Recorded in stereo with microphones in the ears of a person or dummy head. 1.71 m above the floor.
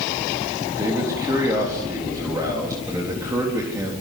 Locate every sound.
0.8 s a man speaking: 15° right (ahead or behind), 4 m